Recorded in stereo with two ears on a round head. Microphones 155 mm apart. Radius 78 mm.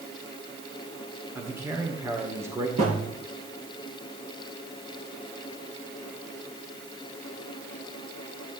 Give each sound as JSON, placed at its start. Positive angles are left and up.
{"t": 1.4, "sound": "a man speaking", "side_deg": -15, "distance_m": 2.0}
{"t": 2.8, "sound": "a thud", "side_deg": -45, "distance_m": 7.0}